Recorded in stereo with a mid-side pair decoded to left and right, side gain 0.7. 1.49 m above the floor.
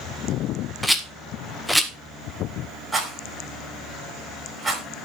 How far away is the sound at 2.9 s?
About 9 m.